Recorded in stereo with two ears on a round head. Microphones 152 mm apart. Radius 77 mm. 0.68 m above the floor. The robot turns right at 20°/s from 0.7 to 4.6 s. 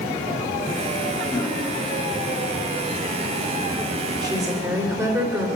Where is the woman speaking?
25° right (ahead or behind), 3 m; by 5.5 s 20° right (ahead or behind), 3 m.